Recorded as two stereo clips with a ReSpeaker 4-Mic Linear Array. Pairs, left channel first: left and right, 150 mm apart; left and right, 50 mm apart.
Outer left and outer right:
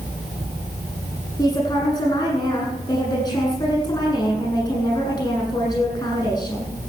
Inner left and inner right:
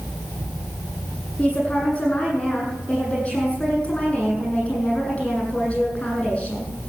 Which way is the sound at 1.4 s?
25° left (ahead or behind).